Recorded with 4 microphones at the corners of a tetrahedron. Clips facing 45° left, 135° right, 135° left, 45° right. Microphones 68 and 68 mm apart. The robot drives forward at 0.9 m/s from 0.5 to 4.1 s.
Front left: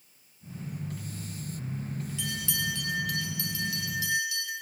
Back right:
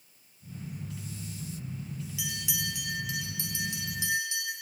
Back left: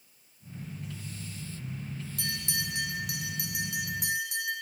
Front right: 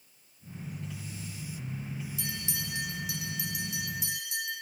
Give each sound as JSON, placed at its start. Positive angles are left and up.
{"t": 2.2, "sound": "a bell", "azimuth_deg": 145, "distance_m": 1.9}